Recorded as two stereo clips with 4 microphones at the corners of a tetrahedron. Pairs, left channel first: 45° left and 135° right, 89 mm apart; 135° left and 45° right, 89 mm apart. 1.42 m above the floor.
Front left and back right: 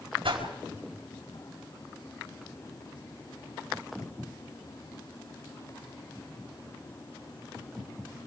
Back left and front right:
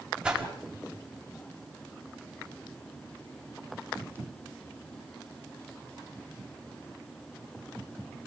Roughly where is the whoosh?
Behind right.